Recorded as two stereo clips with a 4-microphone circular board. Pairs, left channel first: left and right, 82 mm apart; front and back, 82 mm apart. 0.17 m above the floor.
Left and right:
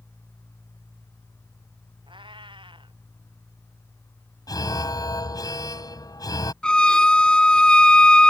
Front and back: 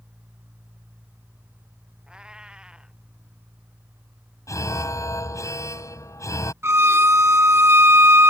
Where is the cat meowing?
100° right.